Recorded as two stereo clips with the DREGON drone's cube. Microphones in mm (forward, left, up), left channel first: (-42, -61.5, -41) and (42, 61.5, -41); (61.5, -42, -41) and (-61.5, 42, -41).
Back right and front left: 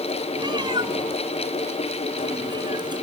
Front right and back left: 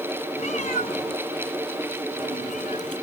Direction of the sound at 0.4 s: Straight ahead.